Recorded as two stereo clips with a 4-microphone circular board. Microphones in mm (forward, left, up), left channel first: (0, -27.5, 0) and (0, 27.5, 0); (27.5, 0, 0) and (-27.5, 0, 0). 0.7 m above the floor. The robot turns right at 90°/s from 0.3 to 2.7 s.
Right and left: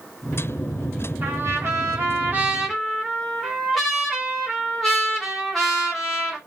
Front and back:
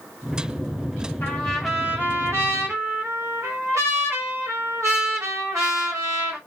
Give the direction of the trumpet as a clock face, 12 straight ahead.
10 o'clock.